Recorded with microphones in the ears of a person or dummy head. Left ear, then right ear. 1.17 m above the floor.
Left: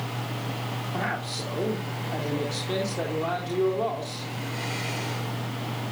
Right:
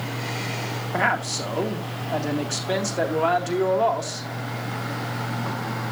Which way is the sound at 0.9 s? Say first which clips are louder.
Right 9 dB; 55° right (ahead or behind).